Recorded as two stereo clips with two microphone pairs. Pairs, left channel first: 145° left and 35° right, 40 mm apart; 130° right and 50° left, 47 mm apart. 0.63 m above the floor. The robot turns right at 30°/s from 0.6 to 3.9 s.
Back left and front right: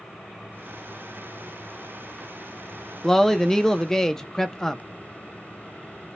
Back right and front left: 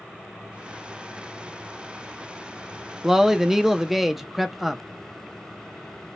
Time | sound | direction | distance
3.0 | a man speaking | 95° left | 0.6 m